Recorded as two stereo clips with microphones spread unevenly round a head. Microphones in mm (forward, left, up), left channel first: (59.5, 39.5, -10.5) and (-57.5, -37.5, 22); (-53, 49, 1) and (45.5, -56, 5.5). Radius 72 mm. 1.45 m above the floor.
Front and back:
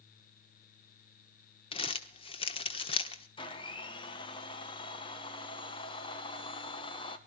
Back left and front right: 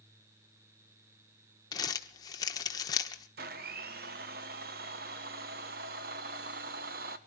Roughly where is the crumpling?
Left.